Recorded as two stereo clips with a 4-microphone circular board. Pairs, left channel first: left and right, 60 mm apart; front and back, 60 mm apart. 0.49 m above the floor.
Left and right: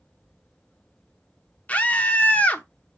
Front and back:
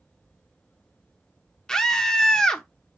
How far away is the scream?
About 0.9 m.